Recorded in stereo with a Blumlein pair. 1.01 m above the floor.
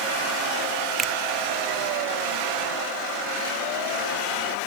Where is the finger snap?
15° right.